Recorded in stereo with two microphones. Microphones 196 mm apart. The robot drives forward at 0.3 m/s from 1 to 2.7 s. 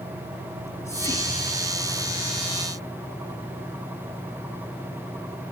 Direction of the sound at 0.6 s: 15° left (ahead or behind).